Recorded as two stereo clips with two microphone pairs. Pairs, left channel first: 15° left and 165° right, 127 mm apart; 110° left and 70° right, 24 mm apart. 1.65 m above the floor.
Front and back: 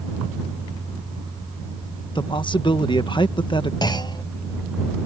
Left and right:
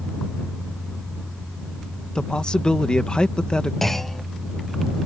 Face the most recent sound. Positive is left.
turn(degrees=50)